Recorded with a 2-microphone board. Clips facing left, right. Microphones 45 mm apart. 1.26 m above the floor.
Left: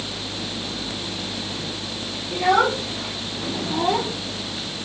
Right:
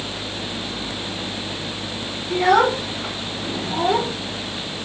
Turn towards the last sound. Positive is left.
turn(degrees=-30)  # may be behind; listen again after turning